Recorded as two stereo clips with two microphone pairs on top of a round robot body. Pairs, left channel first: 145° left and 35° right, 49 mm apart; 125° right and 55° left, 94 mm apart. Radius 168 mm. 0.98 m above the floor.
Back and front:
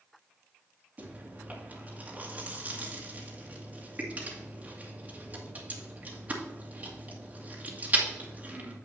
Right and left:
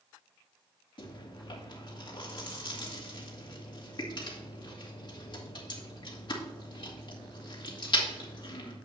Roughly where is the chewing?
Right.